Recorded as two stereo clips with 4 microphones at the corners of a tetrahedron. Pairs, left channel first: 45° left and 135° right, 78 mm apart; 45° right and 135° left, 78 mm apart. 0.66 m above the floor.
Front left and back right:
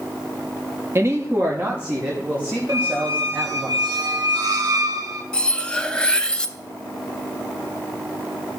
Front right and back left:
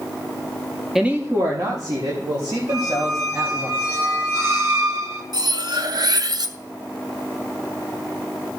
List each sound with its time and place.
0.9 s a woman speaking: 140° right, 0.8 m; by 3.7 s 150° left, 4 m
2.7 s a squeak: 170° right, 1.8 m
5.3 s cutlery clinking: 125° left, 0.6 m